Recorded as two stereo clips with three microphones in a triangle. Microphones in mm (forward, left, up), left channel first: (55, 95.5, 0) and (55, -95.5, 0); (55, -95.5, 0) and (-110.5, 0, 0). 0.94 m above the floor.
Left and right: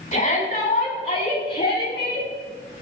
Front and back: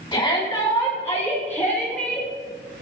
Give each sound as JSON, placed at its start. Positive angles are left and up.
{"t": 0.1, "sound": "a shout", "azimuth_deg": 40, "distance_m": 7.5}